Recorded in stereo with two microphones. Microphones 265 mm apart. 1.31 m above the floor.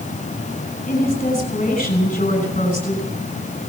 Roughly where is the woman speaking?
Left.